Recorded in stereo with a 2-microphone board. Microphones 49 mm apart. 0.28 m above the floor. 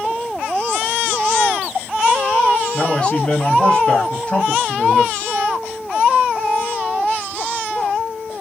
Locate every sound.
2.7 s a man speaking: 20° left (ahead or behind), 1.1 m